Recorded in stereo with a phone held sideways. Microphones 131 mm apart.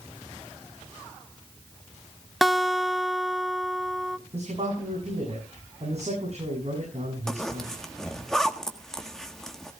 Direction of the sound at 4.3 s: 55° right (ahead or behind).